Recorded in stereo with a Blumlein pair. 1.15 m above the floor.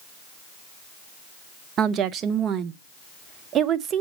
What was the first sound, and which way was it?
A woman speaking, 30° right.